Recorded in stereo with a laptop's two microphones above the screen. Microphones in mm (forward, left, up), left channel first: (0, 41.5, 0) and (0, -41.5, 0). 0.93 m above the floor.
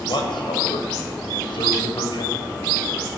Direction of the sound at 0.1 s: 75° left (ahead or behind).